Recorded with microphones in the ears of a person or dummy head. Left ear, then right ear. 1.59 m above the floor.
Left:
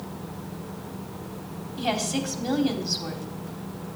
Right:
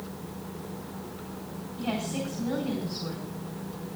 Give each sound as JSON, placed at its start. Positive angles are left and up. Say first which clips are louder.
{"t": 1.8, "sound": "a woman speaking", "louder": "left 6 dB", "side_deg": 75, "distance_m": 4.0}